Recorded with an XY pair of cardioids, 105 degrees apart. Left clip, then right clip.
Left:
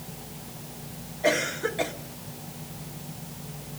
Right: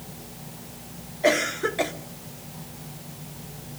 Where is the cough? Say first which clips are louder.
Right 3 dB; 30° right, 2 m.